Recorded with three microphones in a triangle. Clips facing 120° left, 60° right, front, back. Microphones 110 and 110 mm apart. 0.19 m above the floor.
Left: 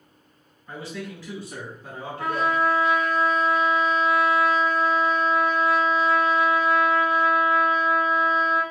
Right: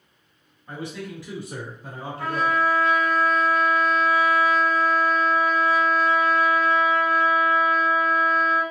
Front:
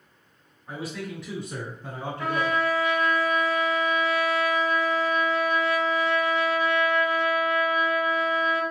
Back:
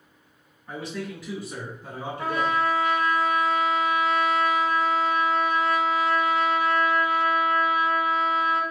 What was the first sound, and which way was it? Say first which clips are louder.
A man speaking: right 1 dB, back 1 dB; 60° right.